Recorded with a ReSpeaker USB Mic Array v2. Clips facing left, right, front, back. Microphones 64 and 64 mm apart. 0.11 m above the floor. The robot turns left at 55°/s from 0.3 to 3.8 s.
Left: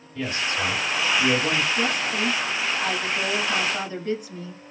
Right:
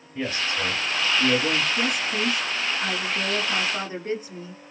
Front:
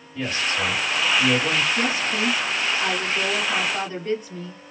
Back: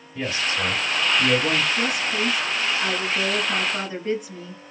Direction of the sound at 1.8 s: 10° right.